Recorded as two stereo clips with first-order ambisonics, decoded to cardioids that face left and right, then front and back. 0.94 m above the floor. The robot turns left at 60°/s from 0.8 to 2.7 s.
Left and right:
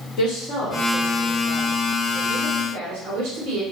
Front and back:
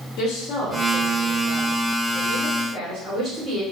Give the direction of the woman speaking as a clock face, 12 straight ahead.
10 o'clock.